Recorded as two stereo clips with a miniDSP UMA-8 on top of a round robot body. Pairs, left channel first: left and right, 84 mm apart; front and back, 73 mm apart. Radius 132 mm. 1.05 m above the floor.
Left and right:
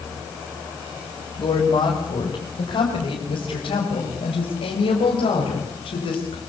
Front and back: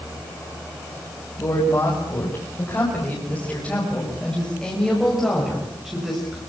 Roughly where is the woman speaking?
Ahead left.